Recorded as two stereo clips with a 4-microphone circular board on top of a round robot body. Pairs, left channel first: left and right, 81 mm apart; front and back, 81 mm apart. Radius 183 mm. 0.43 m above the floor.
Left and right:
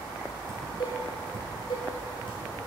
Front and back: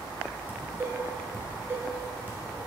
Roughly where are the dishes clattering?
Behind left.